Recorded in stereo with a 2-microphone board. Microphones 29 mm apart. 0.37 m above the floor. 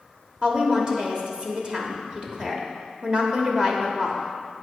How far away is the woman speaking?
About 1.1 m.